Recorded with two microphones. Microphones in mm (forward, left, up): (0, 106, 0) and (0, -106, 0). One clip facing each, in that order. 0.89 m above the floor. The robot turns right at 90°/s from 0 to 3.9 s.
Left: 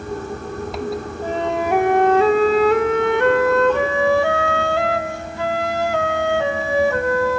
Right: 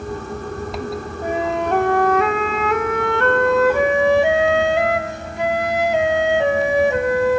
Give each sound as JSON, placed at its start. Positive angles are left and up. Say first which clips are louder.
{"t": 1.2, "sound": "a flute", "louder": "right 1 dB", "azimuth_deg": -30, "distance_m": 0.5}